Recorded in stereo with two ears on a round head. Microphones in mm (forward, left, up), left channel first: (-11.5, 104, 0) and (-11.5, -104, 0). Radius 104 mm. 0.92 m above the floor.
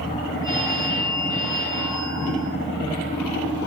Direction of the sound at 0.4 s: 15° left (ahead or behind).